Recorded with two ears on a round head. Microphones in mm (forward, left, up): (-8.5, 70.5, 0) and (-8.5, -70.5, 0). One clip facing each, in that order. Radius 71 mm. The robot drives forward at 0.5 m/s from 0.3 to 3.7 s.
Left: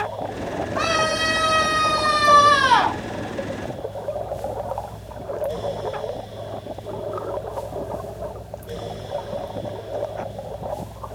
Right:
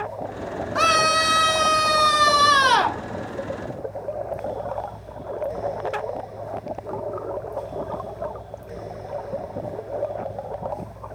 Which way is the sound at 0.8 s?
75° right (ahead or behind).